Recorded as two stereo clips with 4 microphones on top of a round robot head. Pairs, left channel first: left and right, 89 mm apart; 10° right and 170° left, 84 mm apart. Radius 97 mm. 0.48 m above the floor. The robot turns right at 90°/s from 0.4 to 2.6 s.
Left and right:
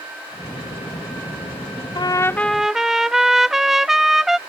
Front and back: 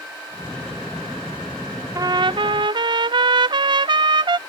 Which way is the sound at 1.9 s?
125° left.